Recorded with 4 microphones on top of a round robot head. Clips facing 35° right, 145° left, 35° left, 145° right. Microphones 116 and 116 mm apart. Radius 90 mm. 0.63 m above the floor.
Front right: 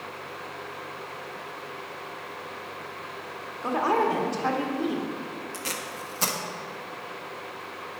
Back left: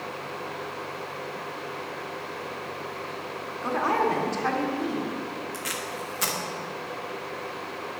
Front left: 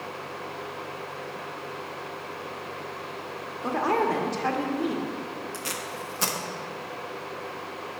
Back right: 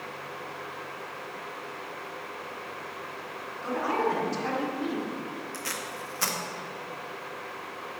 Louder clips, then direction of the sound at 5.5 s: Back left 2 dB, front left 2 dB; 15° right.